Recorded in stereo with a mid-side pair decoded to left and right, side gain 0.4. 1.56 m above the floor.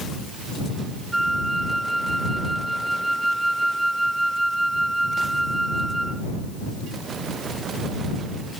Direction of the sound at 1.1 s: 15° right.